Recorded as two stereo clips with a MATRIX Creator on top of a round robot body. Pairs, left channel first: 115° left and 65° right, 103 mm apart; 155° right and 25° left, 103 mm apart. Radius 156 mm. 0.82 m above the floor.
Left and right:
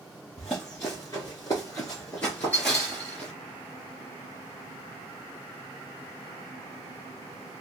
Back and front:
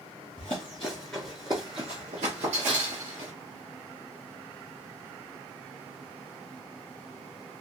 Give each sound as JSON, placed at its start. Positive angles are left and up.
{"t": 0.4, "sound": "running footsteps", "azimuth_deg": -170, "distance_m": 0.9}